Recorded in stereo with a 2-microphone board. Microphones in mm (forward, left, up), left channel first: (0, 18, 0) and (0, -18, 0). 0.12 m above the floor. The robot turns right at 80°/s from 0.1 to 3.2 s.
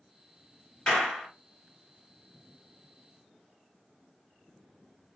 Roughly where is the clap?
Behind left.